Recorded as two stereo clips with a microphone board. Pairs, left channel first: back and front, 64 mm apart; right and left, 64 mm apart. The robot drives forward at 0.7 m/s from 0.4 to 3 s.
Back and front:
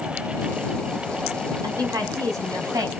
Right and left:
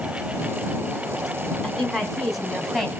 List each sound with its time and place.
1.6 s a woman speaking: straight ahead, 4.5 m